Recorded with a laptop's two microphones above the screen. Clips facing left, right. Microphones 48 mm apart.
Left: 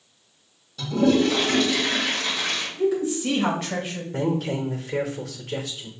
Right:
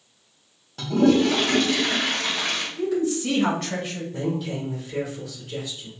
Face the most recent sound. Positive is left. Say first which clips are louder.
# left 4 dB
turn(degrees=75)  # may be behind; listen again after turning